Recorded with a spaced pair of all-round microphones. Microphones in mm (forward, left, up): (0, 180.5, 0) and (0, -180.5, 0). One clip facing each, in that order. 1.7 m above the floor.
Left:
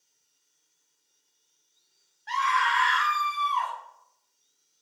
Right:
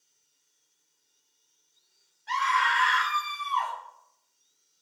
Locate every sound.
2.3 s a scream: 10° right (ahead or behind), 0.8 m; by 3.7 s 40° left (ahead or behind), 0.8 m